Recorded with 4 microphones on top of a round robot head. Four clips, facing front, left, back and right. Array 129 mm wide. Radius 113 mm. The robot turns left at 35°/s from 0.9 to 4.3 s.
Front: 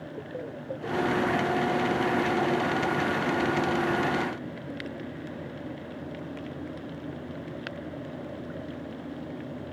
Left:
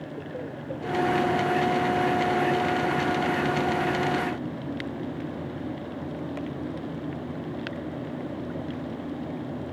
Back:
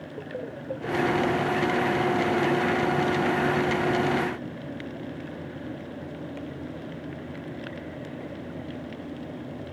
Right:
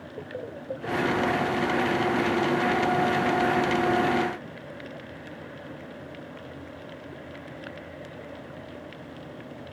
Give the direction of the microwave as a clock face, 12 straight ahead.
No microwave in this recording.